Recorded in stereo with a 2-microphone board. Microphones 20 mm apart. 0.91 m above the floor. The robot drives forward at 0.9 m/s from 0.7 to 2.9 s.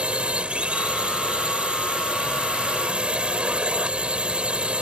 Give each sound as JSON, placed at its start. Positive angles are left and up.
{"t": 0.0, "sound": "a drone", "side_deg": -75}